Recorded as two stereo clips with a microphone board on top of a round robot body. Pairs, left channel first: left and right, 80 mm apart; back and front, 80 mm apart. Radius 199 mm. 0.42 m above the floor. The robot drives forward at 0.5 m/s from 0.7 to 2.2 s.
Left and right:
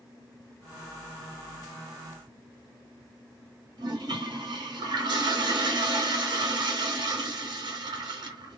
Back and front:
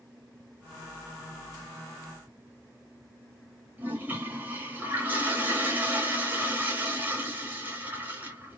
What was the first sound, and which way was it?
A toilet flushing, 65° right.